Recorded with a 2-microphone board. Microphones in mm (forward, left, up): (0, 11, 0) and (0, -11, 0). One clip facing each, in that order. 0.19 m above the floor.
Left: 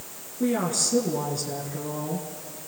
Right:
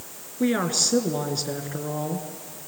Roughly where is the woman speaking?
Right.